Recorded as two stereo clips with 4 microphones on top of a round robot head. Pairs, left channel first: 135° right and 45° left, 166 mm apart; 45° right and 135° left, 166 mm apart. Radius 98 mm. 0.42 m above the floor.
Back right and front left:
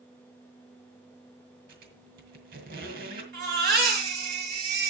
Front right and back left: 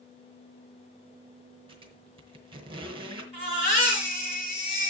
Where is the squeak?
75° left, 2.5 m.